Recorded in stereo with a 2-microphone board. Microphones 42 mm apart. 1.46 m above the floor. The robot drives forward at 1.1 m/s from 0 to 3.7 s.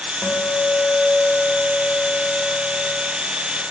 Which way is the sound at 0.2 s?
55° left (ahead or behind).